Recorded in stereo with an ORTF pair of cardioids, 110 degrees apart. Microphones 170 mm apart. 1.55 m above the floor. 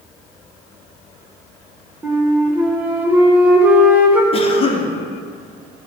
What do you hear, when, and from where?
2.0 s a flute: 10° right, 1.3 m
4.3 s a cough: 35° left, 1.2 m